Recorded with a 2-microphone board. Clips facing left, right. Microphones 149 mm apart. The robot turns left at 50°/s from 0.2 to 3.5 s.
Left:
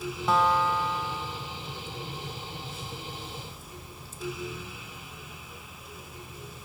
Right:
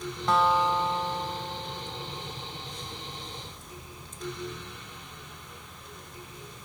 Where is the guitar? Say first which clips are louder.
Right 1 dB; 5° left; by 2.5 s 110° right.